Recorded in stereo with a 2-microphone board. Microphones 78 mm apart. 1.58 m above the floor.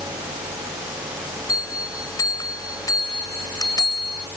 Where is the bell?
55° left (ahead or behind).